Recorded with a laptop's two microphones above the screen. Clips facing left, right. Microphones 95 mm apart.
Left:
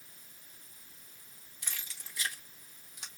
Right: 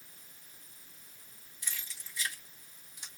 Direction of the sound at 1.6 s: 60° left (ahead or behind).